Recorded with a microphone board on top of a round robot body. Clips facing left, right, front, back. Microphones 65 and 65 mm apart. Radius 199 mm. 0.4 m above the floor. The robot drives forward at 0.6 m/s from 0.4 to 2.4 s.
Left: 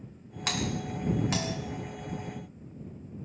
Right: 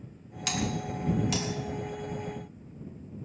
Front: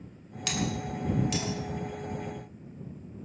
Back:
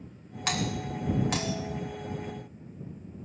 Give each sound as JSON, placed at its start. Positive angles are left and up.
{"t": 0.5, "sound": "a doorbell", "azimuth_deg": 130, "distance_m": 2.5}